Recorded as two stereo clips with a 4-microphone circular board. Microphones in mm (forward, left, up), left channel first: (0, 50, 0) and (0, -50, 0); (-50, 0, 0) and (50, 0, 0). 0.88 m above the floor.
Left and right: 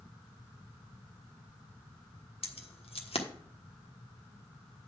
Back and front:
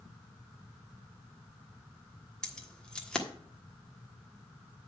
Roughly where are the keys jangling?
Left.